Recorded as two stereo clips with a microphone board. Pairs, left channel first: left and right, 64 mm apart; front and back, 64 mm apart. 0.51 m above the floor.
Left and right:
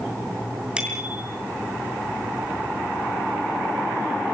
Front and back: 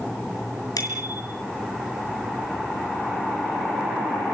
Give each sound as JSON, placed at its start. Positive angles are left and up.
{"t": 0.8, "sound": "a bicycle bell", "azimuth_deg": -15, "distance_m": 5.5}